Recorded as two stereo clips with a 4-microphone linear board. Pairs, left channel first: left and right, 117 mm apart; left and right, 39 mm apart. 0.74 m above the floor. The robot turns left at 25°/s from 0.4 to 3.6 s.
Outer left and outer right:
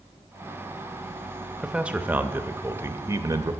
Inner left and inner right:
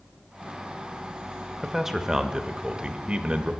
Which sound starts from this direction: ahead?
A man speaking, at 1.6 s.